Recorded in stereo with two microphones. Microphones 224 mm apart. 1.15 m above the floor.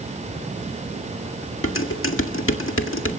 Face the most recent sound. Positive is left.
turn(degrees=70)  # may be behind; listen again after turning